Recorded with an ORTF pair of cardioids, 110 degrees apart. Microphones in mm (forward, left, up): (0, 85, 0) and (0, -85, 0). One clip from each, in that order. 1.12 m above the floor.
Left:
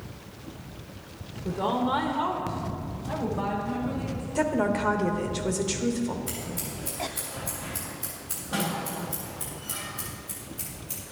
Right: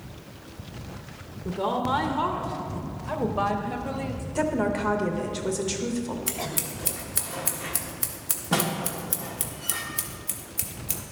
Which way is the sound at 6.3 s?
65° right.